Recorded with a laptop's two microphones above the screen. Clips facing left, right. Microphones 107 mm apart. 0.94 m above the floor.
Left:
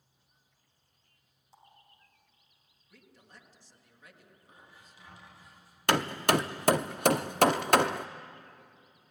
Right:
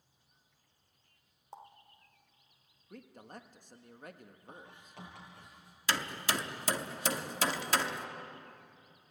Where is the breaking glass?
No breaking glass in this recording.